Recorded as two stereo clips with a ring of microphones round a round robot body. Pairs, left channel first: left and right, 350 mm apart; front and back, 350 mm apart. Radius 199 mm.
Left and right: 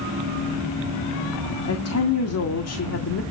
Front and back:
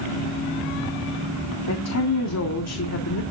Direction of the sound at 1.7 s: 45° left.